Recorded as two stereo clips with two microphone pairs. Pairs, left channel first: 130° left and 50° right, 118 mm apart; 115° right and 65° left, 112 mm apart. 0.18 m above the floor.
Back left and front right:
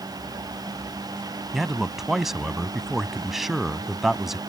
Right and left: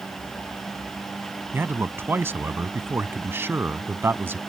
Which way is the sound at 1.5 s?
30° left.